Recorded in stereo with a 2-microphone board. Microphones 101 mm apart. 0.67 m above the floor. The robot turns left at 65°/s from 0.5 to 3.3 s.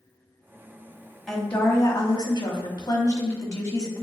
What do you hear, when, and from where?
1.3 s a woman speaking: 175° left, 1.0 m; by 4.0 s 45° left, 1.0 m